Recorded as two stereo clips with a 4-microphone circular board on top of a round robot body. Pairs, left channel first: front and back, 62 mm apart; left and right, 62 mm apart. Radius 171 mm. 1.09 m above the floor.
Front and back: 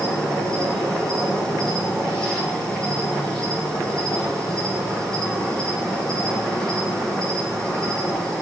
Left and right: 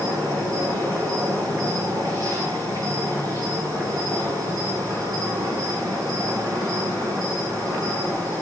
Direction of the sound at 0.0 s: 80° right.